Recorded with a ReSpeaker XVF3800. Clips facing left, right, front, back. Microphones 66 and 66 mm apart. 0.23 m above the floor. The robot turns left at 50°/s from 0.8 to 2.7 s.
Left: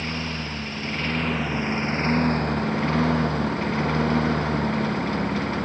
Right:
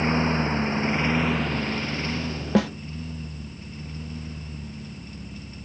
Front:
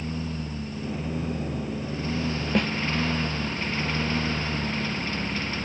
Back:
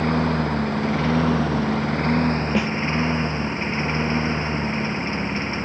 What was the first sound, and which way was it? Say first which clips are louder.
A lawn mower: right 7 dB, back 12 dB; 150° right.